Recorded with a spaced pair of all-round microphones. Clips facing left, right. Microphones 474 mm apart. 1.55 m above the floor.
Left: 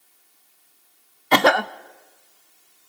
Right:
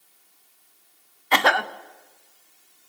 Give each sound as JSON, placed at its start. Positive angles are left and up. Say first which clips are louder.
{"t": 1.3, "sound": "a cough", "louder": "left 6 dB", "side_deg": 55, "distance_m": 0.6}